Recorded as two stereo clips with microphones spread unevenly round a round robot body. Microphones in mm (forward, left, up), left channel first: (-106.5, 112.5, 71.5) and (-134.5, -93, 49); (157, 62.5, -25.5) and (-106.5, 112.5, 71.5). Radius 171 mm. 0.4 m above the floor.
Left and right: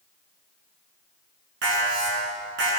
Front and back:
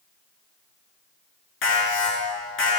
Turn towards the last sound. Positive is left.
turn(degrees=-55)